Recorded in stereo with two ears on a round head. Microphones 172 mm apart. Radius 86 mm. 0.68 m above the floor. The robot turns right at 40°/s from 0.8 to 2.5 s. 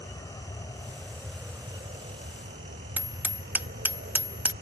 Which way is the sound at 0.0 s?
160° left.